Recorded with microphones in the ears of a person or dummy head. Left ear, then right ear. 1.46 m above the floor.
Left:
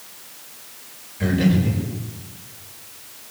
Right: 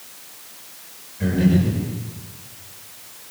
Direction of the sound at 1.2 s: 25° left (ahead or behind).